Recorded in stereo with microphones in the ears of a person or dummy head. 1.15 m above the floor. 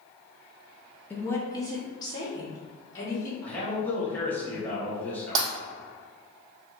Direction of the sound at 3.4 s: 10° left (ahead or behind).